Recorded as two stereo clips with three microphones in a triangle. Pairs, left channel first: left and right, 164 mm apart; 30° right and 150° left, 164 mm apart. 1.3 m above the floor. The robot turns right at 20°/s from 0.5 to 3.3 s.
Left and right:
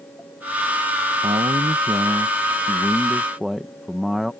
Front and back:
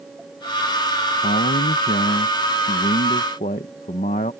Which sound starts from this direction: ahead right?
A man speaking, at 1.2 s.